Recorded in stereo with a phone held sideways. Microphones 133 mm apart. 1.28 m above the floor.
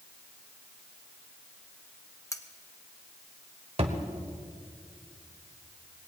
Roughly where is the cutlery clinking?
Left.